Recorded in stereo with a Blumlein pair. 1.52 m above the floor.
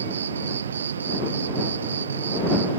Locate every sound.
0.0 s an insect: 70° right